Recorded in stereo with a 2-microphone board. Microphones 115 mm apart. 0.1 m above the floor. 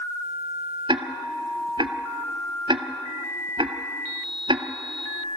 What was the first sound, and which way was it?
Ticking, 50° right (ahead or behind).